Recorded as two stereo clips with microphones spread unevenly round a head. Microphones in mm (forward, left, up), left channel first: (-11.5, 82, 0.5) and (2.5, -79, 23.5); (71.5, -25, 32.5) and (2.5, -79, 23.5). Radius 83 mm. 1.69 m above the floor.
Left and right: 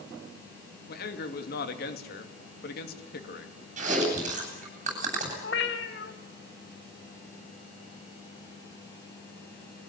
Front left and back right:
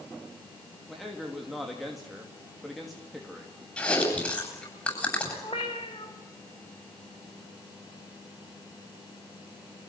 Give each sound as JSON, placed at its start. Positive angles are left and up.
{"t": 0.9, "sound": "a man speaking", "azimuth_deg": 125, "distance_m": 2.5}
{"t": 3.8, "sound": "chewing", "azimuth_deg": -35, "distance_m": 8.5}
{"t": 5.4, "sound": "a cat meowing", "azimuth_deg": 85, "distance_m": 1.9}